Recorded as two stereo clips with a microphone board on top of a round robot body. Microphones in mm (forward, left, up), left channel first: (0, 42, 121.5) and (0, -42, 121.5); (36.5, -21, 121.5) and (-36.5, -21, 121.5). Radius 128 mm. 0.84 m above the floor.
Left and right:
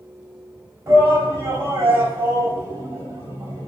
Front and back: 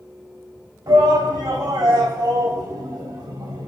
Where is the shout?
150° right, 4.5 m.